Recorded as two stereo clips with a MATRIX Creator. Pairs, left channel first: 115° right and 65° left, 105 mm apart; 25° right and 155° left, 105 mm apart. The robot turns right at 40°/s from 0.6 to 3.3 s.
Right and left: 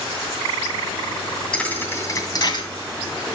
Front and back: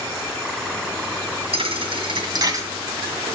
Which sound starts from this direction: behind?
A thud, at 1.5 s.